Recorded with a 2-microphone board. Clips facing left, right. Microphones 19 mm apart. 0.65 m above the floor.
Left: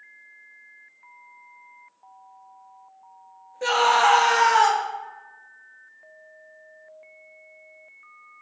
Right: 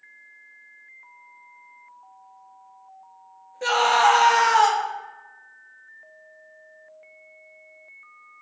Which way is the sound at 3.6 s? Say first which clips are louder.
Even; 5° right (ahead or behind).